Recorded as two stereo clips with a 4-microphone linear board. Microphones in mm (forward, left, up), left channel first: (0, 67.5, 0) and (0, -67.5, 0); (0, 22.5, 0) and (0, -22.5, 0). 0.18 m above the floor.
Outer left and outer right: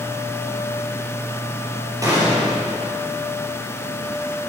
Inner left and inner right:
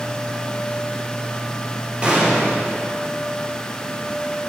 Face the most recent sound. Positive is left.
turn(degrees=-25)  # may be behind; listen again after turning